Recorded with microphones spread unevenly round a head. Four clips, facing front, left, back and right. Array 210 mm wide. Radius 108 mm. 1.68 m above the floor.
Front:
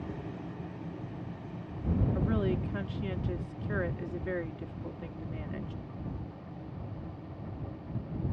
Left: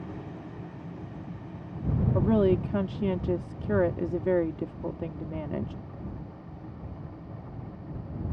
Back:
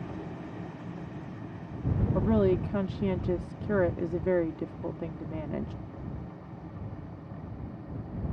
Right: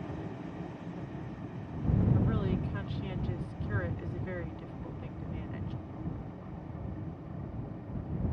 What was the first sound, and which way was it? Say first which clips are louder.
A woman speaking: left 9 dB, back 11 dB; 125° left.